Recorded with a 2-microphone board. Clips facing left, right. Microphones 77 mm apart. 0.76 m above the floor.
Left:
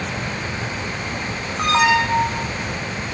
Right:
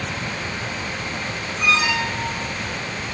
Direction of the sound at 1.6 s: 55° left (ahead or behind).